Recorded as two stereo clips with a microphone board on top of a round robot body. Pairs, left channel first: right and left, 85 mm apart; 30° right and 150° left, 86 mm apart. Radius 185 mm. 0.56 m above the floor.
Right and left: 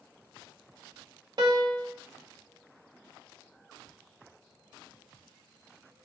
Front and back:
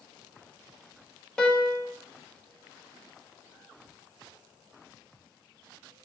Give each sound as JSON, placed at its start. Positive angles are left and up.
{"t": 1.4, "sound": "a piano", "azimuth_deg": 50, "distance_m": 1.1}